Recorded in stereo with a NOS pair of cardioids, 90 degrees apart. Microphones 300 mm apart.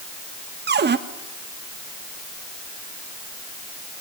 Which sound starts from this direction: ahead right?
A cupboard door, at 0.7 s.